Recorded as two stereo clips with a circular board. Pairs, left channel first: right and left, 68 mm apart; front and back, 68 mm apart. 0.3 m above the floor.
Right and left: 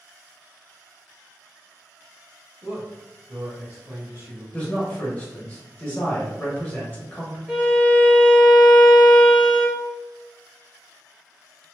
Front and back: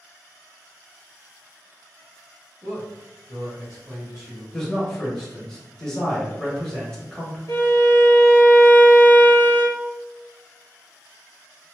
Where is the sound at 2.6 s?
50° left, 1.5 m; by 4.4 s 115° left, 1.6 m.